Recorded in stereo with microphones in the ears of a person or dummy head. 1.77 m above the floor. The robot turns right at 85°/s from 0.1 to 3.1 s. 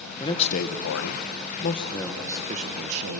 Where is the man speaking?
15° left, 1.6 m; by 3.2 s 95° right, 1.6 m.